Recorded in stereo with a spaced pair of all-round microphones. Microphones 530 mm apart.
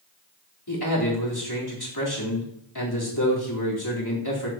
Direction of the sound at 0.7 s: 45° left (ahead or behind).